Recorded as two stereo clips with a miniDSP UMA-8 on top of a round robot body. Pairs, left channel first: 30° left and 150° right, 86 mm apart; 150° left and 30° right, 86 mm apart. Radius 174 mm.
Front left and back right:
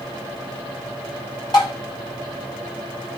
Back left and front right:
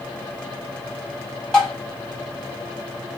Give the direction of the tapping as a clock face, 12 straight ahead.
10 o'clock.